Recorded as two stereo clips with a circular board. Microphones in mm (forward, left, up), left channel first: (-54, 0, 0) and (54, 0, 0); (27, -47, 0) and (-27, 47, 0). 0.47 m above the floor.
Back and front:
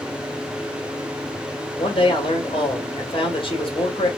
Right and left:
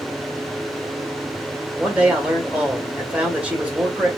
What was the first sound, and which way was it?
A man speaking, 165° right.